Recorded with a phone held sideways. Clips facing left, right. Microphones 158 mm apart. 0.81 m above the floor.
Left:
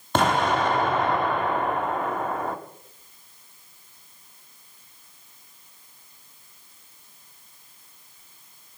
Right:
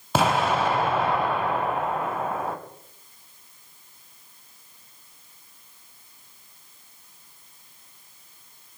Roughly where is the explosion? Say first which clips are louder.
Even; centre.